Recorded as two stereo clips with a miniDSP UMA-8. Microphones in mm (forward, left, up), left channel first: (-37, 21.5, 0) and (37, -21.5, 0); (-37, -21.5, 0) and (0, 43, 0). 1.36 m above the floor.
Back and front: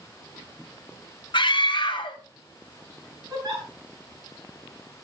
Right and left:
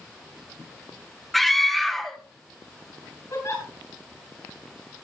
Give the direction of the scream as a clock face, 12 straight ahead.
7 o'clock.